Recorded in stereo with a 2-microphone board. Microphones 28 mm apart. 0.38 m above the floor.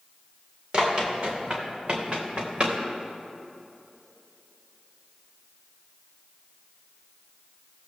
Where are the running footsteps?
25° right (ahead or behind), 4 m; by 2.8 s 35° right (ahead or behind), 2.5 m.